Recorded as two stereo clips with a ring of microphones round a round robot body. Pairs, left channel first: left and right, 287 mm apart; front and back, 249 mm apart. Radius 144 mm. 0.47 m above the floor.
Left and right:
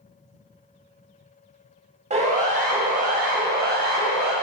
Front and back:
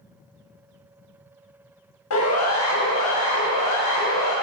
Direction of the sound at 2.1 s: 25° right.